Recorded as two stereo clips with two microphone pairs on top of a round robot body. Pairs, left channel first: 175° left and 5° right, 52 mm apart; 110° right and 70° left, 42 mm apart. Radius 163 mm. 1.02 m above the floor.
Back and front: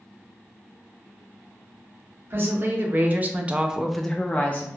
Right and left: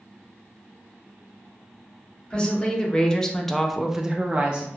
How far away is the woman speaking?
About 1.0 m.